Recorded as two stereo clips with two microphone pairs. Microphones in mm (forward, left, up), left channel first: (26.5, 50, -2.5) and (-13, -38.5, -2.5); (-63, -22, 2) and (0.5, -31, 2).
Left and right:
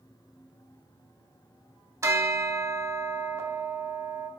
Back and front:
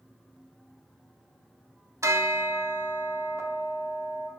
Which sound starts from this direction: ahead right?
A bell, at 2.0 s.